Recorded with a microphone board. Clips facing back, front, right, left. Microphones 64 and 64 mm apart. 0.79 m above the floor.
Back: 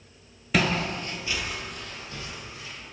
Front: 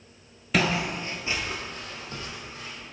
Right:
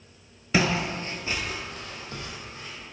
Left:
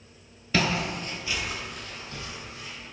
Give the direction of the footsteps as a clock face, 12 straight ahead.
3 o'clock.